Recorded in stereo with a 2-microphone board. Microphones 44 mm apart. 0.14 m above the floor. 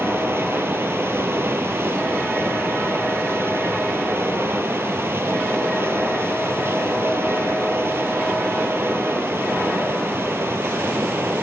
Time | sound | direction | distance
0.0 | running water | 65° right (ahead or behind) | 0.9 m